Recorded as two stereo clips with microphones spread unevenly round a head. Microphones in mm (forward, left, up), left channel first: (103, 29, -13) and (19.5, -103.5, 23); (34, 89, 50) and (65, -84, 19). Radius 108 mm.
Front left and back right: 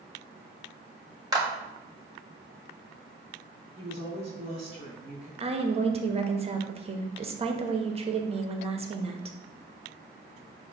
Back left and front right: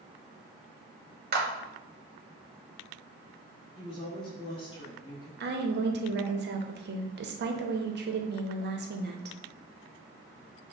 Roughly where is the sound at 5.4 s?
Ahead right.